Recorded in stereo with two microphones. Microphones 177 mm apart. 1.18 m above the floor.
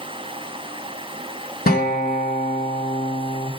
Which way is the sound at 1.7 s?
60° left (ahead or behind).